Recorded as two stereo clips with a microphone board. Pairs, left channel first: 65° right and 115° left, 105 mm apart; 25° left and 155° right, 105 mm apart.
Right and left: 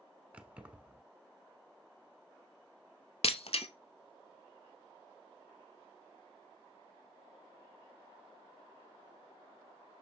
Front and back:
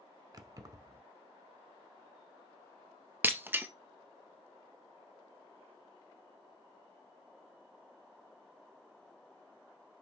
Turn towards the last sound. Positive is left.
turn(degrees=-85)